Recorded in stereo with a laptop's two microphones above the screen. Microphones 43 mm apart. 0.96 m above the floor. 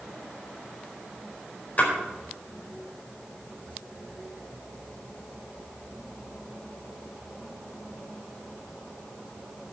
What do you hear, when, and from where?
1.8 s a splash: 40° left (ahead or behind), 4.5 m